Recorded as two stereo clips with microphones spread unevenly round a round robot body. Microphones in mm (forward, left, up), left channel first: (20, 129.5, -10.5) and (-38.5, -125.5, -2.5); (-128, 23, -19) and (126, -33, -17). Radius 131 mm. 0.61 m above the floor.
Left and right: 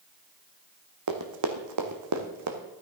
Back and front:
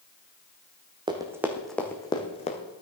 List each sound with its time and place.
1.1 s running footsteps: 85° right, 1.8 m; by 2.6 s 130° right, 2.0 m